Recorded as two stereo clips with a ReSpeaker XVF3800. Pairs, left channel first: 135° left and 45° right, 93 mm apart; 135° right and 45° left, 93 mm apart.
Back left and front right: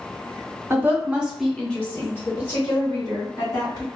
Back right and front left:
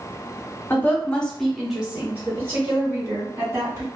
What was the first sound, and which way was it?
A woman speaking, 85° right.